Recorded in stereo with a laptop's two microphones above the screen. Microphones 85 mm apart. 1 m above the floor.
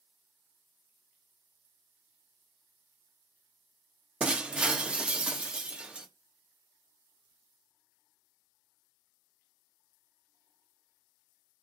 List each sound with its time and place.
4.2 s breaking glass: 15° right (ahead or behind), 0.5 m